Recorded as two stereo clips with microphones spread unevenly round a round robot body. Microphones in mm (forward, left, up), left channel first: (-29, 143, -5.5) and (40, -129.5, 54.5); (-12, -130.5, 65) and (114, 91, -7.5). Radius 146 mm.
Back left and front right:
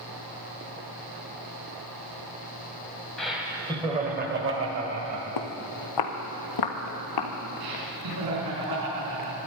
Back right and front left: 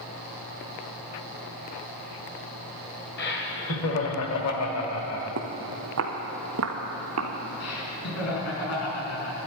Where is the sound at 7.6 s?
90° right, 5 m.